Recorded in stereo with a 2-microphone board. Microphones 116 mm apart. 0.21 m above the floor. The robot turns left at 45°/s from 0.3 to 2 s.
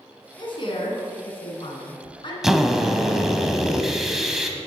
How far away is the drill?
About 0.8 m.